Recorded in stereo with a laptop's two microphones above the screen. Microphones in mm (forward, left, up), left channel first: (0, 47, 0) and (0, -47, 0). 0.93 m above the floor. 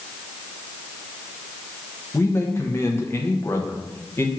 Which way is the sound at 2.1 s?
25° left (ahead or behind).